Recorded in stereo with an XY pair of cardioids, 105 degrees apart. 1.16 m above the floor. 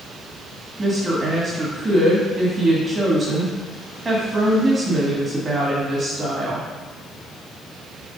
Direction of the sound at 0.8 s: 25° right.